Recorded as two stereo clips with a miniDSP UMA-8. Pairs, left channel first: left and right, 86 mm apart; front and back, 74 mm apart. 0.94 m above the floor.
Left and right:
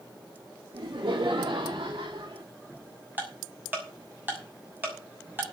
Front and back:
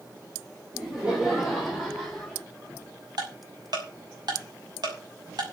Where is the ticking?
160° right, 6 m.